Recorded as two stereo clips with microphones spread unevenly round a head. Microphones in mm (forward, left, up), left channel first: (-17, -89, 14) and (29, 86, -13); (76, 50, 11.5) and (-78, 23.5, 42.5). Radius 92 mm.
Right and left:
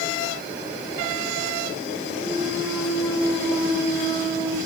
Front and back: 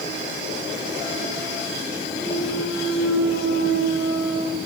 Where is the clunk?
170° left, 1.6 m.